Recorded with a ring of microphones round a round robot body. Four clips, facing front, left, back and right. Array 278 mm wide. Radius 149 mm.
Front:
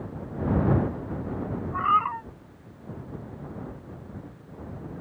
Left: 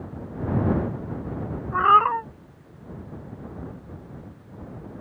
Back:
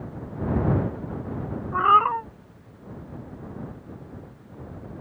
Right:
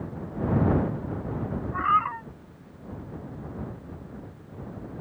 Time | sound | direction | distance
1.7 | a cat meowing | 125° left | ?